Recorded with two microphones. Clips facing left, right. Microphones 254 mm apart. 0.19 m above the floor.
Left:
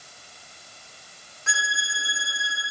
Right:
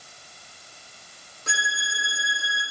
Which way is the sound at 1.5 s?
45° right (ahead or behind).